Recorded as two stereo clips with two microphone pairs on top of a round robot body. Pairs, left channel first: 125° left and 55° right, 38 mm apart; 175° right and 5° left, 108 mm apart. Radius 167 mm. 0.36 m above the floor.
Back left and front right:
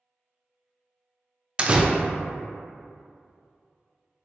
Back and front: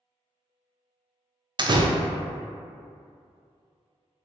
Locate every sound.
1.6 s a door slam: 5° right, 0.5 m